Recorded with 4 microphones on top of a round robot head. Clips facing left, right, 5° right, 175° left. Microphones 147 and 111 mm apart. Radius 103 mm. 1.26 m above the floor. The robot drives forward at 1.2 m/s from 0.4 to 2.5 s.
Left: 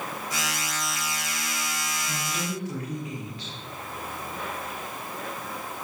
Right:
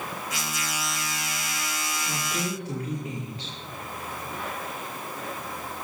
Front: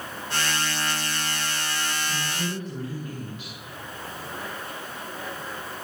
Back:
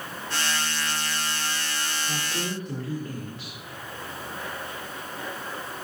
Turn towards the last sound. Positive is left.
turn(degrees=-145)